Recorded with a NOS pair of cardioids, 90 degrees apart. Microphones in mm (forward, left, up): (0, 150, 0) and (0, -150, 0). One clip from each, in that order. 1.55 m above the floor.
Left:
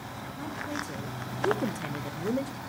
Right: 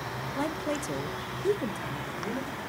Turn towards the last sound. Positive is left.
turn(degrees=50)